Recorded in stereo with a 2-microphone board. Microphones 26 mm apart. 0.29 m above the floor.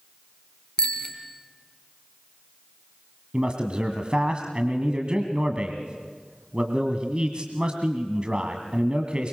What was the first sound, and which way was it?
A bicycle bell, 35° left (ahead or behind).